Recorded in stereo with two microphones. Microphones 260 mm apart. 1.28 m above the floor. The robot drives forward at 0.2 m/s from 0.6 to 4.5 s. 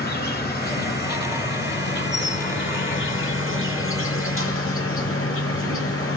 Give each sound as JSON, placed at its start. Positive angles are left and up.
{"t": 0.0, "sound": "an insect", "side_deg": 35, "distance_m": 1.6}